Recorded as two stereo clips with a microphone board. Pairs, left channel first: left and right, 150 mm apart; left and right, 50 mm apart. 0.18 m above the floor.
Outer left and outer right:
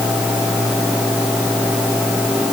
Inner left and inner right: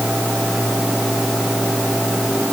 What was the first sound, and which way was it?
Only background noise.